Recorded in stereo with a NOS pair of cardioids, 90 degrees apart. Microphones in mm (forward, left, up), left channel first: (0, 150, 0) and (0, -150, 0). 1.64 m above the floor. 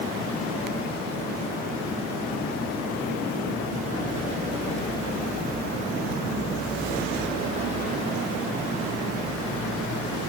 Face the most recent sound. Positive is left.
No sound to turn to.